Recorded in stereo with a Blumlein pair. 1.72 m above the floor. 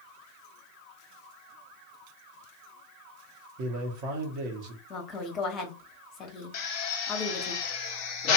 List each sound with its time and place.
3.6 s a man speaking: 40° right, 1.0 m
4.9 s a woman speaking: 25° left, 0.9 m
6.5 s a drill: 40° left, 0.8 m